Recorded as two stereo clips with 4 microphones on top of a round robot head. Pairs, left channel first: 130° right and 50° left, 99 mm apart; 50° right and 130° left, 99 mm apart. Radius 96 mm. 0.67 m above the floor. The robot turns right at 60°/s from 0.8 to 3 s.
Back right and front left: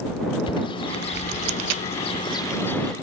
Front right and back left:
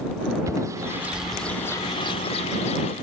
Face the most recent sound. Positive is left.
turn(degrees=-40)